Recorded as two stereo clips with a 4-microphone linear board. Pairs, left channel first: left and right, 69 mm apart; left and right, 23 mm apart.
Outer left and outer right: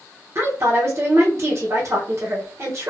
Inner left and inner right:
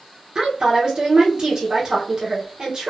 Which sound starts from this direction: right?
A woman speaking, at 0.3 s.